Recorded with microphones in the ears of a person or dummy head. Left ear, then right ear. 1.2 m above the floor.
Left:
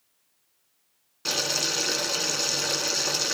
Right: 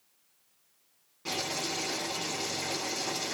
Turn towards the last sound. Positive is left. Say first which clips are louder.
# left 7 dB
turn(degrees=60)  # may be behind; listen again after turning